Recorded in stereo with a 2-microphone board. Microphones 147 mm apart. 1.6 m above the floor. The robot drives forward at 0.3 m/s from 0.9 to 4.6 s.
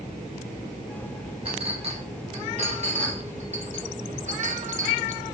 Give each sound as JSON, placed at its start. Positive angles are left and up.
{"t": 1.4, "sound": "a clink", "side_deg": -40, "distance_m": 1.8}